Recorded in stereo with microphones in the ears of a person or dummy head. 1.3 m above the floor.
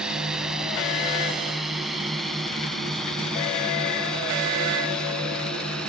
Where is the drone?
Centre (ahead or behind); by 5.9 s 10° left (ahead or behind).